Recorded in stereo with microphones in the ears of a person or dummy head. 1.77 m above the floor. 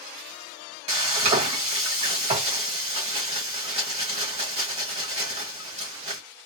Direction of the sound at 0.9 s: 35° right (ahead or behind).